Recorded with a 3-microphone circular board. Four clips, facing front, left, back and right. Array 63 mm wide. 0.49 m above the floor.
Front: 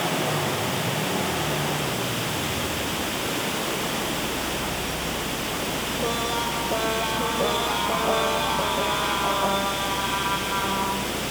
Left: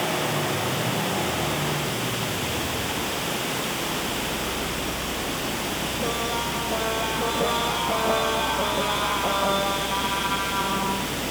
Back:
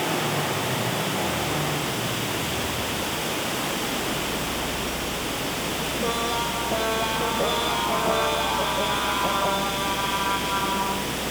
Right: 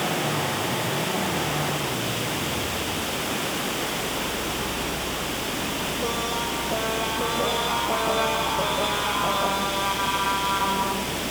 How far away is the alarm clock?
No alarm clock in this recording.